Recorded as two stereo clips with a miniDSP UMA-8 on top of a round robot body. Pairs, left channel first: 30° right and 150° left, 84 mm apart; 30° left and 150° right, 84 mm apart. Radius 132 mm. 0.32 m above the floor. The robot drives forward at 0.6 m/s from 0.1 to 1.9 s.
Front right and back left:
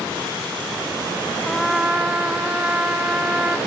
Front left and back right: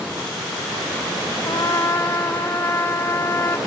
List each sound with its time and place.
1.4 s a trumpet: 50° left, 0.7 m; by 3.6 s 80° left, 0.6 m